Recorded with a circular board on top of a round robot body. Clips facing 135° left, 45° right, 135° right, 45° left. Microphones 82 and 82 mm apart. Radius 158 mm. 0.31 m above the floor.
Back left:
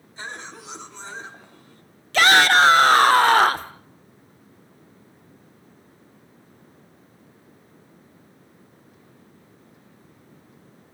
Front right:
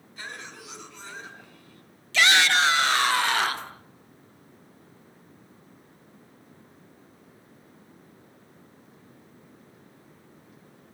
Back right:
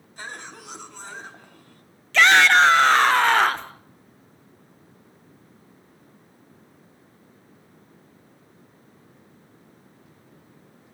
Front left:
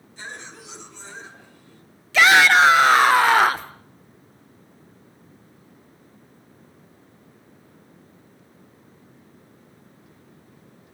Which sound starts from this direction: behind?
A cough, at 0.2 s.